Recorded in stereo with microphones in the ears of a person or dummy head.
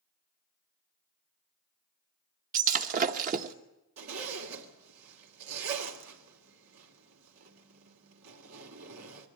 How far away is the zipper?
About 2.5 m.